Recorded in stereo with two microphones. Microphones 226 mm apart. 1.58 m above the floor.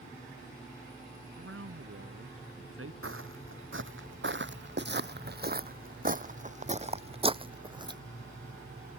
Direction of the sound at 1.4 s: 70° right (ahead or behind).